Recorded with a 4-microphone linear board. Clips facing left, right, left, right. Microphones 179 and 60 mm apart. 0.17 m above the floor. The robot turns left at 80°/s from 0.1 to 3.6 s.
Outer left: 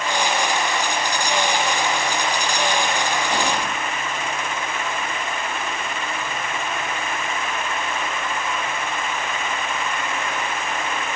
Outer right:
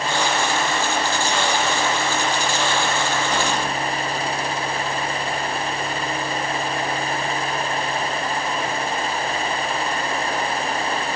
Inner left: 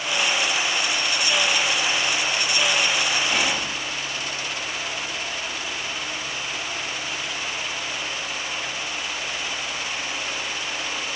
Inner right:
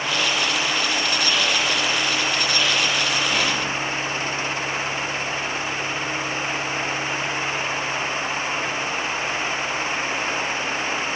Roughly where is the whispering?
Centre.